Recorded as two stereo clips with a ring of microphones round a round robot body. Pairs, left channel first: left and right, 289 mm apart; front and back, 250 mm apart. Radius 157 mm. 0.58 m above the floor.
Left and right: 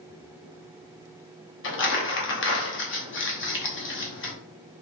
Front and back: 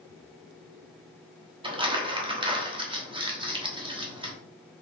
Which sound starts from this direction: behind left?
Crumpling, at 1.6 s.